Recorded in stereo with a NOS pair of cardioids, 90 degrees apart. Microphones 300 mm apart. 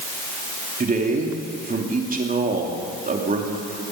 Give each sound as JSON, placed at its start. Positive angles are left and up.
{"t": 0.8, "sound": "a man speaking", "azimuth_deg": -30, "distance_m": 2.5}